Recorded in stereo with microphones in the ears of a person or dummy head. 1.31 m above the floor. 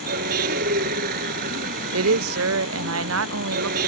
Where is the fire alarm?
I don't hear a fire alarm.